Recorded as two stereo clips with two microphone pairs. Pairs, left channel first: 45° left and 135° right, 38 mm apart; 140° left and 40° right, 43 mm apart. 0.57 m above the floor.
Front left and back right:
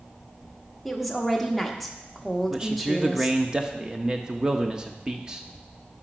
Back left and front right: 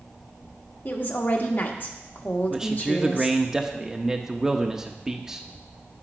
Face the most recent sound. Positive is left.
turn(degrees=-100)